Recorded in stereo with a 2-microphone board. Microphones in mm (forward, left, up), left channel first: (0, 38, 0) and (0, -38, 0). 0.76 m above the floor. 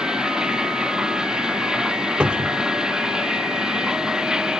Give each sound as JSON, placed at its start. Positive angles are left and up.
{"t": 0.0, "sound": "running water", "side_deg": -10}
{"t": 2.2, "sound": "a cupboard door", "side_deg": -15}